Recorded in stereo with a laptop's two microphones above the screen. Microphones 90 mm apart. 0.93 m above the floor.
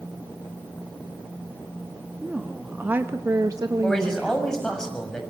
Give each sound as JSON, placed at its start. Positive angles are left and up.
{"t": 2.2, "sound": "a woman speaking", "side_deg": -10, "distance_m": 2.0}
{"t": 3.8, "sound": "a man speaking", "side_deg": 5, "distance_m": 6.0}